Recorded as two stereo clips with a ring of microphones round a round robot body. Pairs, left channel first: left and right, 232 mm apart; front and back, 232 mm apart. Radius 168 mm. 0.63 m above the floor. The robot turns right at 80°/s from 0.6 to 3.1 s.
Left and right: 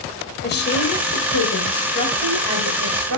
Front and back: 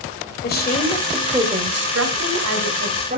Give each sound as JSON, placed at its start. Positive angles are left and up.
{"t": 0.4, "sound": "a woman speaking", "azimuth_deg": 45, "distance_m": 2.5}